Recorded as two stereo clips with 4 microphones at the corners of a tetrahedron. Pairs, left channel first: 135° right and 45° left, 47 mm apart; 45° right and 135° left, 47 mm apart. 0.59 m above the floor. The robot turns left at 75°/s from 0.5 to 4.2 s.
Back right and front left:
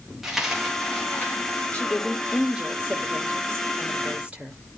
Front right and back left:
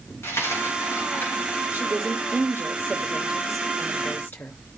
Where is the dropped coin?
35° right, 5 m; by 1.6 s 120° right, 5 m.